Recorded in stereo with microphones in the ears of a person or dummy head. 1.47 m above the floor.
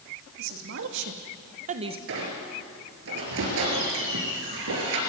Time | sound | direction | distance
0.4 | a woman speaking | 65° right (ahead or behind) | 2.5 m
2.1 | a squeak | 65° right (ahead or behind) | 5 m